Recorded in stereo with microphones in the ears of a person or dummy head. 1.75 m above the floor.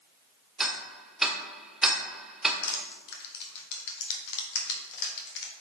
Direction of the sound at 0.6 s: Centre (ahead or behind).